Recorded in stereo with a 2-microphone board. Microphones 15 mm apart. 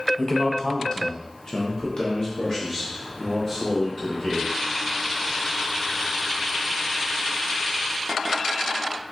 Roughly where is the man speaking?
Left.